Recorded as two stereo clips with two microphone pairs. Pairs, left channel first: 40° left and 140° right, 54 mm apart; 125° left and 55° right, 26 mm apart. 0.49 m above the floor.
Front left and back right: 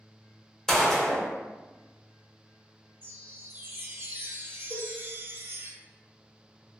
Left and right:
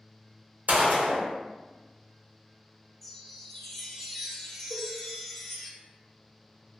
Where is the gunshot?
45° right, 0.6 m.